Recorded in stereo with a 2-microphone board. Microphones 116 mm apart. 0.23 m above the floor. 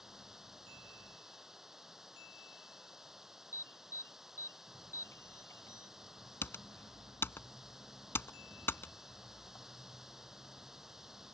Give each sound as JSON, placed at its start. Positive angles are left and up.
{"t": 0.0, "sound": "running water", "side_deg": -5}
{"t": 3.5, "sound": "an alarm", "side_deg": 20}
{"t": 6.4, "sound": "typing on a keyboard", "side_deg": 20}